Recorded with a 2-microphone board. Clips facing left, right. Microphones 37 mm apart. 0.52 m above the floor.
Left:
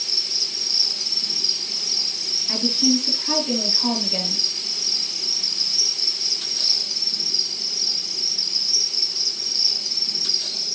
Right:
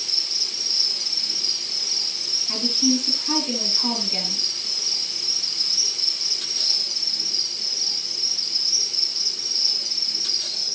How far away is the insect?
About 6 m.